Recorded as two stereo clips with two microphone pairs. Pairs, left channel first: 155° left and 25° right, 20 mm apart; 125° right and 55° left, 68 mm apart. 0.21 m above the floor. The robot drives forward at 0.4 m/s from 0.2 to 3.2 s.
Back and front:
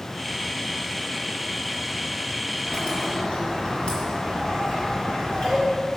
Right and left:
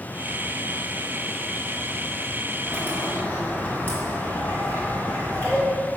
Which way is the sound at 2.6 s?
Straight behind.